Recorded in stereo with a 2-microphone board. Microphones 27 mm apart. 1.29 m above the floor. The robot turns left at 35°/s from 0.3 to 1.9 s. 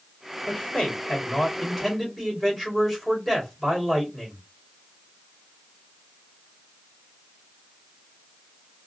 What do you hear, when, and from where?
0.5 s a man speaking: 45° left, 2.5 m; by 4.4 s 5° right, 2.5 m